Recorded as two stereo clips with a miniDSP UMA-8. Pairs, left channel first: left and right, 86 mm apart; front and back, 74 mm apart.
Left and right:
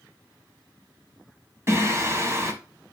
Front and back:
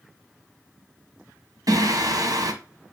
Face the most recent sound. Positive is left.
turn(degrees=-150)